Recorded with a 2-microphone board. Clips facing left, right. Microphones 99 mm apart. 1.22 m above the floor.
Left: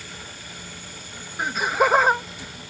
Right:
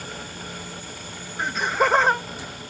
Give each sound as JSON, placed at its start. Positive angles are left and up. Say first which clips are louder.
{"t": 1.4, "sound": "laughter", "louder": "left 1 dB", "side_deg": 5}